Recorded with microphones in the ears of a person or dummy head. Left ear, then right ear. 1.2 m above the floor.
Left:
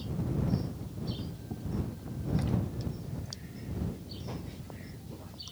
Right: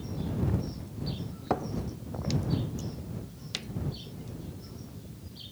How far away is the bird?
I don't hear a bird.